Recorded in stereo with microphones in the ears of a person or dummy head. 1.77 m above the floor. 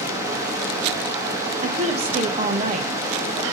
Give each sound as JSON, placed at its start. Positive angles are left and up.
{"t": 0.0, "sound": "running water", "side_deg": -20, "distance_m": 2.0}
{"t": 1.6, "sound": "a woman speaking", "side_deg": -35, "distance_m": 1.6}